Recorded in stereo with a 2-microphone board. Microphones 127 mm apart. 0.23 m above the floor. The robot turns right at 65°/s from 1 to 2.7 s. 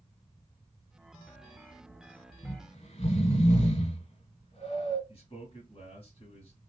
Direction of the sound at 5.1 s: 45° left (ahead or behind).